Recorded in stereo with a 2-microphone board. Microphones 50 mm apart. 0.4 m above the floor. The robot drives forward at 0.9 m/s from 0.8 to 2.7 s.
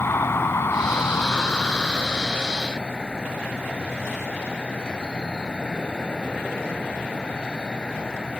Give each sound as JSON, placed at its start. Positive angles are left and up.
{"t": 0.0, "sound": "an insect", "side_deg": 60}